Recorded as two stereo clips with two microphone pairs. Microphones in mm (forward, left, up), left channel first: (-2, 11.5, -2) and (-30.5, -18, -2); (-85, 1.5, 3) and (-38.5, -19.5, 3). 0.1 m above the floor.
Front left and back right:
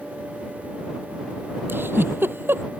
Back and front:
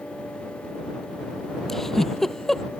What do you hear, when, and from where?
1.7 s a giggle: 120° right